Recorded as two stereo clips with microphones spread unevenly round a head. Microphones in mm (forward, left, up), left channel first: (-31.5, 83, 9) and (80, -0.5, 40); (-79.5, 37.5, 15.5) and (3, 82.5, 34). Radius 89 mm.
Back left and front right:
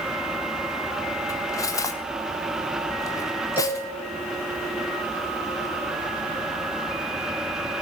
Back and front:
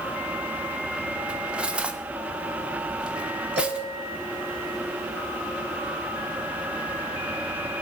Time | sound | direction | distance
1.3 | cutlery clinking | 75° left | 0.8 m
3.6 | a cowbell | 35° left | 6 m